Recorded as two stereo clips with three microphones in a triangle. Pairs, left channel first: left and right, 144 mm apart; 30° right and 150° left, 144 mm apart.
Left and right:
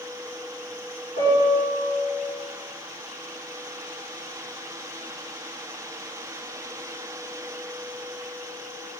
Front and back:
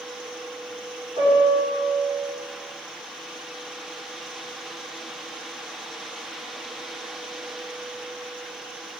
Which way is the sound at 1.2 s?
100° left.